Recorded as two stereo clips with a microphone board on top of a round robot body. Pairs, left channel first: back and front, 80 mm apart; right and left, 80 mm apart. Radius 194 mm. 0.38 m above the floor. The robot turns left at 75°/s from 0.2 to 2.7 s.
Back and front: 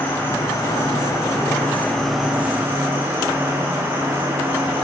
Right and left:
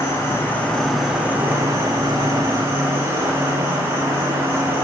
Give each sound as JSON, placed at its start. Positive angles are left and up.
{"t": 0.0, "sound": "an insect", "azimuth_deg": -125, "distance_m": 2.5}